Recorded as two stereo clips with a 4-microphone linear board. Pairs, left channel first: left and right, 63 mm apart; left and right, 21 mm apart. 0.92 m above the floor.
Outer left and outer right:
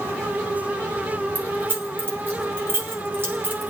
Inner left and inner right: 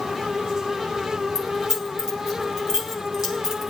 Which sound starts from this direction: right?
Keys jangling, at 1.4 s.